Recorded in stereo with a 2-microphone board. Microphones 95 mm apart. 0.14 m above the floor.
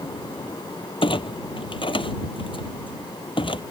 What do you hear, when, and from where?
1.0 s a clunk: 65° left (ahead or behind)